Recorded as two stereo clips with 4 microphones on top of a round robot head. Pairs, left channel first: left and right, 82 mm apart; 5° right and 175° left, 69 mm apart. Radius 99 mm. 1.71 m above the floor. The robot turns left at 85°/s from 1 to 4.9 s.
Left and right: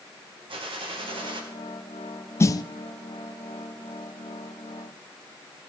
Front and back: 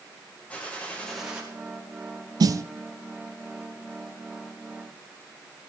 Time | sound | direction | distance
0.5 | a gunshot | 80° right | 2.5 m
2.4 | a snare drum | 150° left | 0.6 m